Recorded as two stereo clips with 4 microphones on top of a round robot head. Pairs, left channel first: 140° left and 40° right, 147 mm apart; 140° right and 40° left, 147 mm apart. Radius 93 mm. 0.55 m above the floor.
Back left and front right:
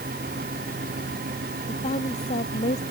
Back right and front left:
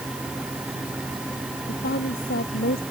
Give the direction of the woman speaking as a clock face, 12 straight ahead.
6 o'clock.